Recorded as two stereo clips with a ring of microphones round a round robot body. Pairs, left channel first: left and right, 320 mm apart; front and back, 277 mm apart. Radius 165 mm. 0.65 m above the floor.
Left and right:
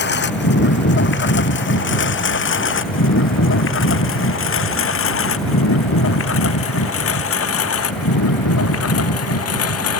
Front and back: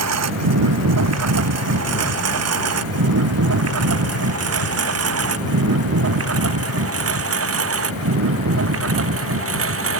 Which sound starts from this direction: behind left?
A lawn mower, at 0.0 s.